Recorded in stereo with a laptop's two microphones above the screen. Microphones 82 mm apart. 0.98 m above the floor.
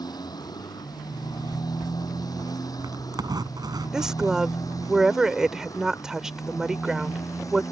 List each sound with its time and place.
0.0 s a motorcycle: 60° left (ahead or behind); by 7.7 s 45° left (ahead or behind)
1.1 s a zipper: 55° right (ahead or behind)
3.9 s a woman speaking: 5° right (ahead or behind)